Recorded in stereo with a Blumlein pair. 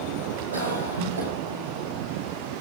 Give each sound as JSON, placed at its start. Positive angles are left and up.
{"t": 0.5, "sound": "a cough", "azimuth_deg": -55, "distance_m": 5.0}